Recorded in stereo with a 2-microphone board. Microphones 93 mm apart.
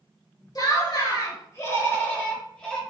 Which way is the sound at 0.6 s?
45° left (ahead or behind).